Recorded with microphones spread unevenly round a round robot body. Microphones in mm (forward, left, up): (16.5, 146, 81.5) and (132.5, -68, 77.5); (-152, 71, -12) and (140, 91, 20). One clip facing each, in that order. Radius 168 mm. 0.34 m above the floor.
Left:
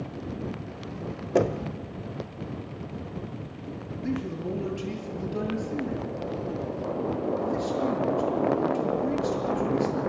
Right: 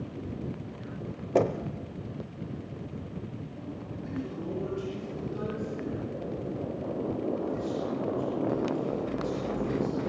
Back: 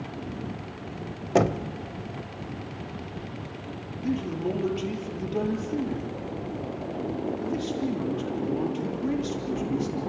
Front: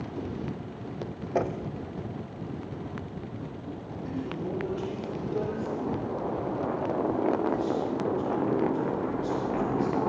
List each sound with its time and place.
1.4 s knocking: 165° right, 0.9 m
4.0 s a man speaking: 140° left, 8 m